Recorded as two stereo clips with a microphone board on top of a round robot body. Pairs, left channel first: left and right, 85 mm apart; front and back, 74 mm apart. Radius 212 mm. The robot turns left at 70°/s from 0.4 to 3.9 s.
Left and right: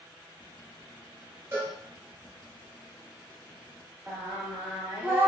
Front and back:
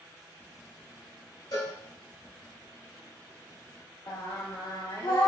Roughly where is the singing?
Ahead.